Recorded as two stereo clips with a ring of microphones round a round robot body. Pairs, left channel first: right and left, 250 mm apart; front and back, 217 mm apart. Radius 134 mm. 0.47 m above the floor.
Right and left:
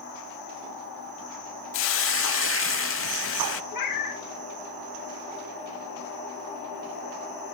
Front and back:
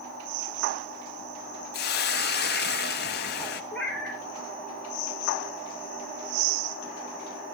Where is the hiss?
50° right, 0.5 m.